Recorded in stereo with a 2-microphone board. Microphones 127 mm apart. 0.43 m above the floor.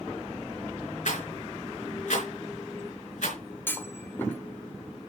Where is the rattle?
75° left (ahead or behind), 3.5 m.